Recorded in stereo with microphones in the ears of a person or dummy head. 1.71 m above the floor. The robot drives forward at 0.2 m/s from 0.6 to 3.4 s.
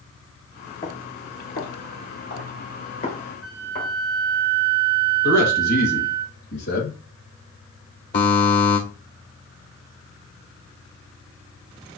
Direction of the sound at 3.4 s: 25° left (ahead or behind).